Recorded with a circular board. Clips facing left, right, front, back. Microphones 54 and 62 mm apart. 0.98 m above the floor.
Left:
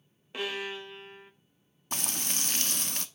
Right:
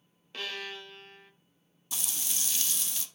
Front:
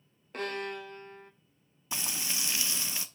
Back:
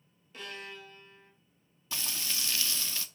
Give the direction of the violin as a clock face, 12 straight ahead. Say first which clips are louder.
Left 4 dB, front 8 dB; 11 o'clock.